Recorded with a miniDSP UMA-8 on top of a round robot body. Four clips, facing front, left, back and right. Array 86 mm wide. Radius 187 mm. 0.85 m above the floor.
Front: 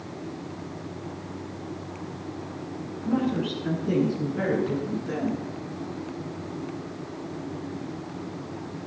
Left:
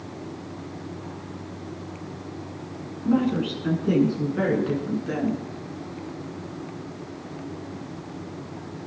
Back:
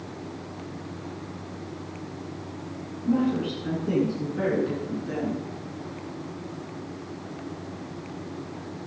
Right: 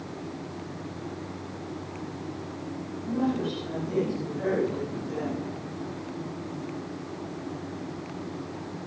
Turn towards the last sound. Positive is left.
turn(degrees=85)